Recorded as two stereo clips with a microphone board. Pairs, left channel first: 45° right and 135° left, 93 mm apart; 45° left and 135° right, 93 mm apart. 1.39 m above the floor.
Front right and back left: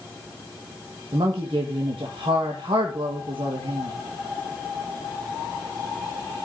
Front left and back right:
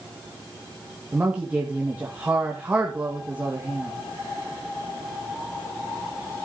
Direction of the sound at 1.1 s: 150° left.